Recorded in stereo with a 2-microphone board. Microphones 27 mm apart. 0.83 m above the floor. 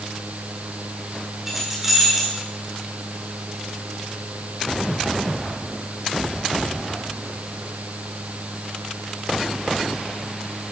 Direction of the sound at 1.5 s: 15° right (ahead or behind).